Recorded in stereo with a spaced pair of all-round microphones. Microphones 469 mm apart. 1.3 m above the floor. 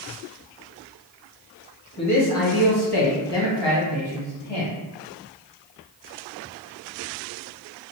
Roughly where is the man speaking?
Left.